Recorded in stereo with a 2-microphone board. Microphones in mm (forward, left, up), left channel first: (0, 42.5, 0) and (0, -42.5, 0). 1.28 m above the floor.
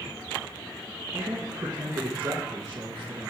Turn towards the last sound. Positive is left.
turn(degrees=-55)  # may be behind; listen again after turning